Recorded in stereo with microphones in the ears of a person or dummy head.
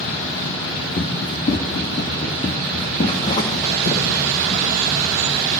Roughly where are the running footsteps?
Left.